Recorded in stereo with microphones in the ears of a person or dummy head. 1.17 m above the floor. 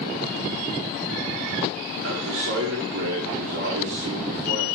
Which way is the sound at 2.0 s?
65° right (ahead or behind).